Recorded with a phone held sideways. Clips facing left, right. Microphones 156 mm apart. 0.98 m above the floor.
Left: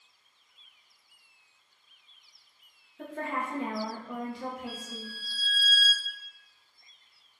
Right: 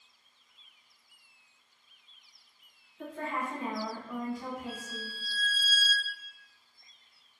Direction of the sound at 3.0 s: 55° left (ahead or behind).